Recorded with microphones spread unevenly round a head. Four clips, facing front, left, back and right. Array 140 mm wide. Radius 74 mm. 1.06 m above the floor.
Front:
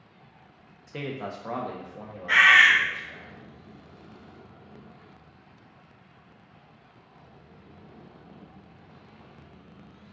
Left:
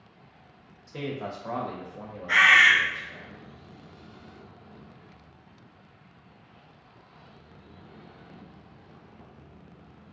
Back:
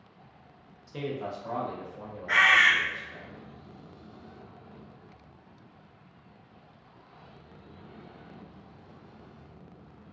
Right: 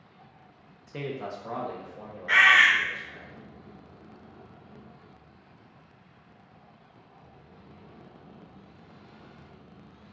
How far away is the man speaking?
About 0.5 m.